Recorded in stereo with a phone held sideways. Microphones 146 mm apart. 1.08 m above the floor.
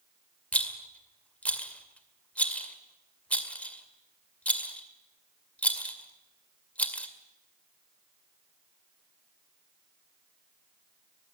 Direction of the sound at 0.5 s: 10° left (ahead or behind).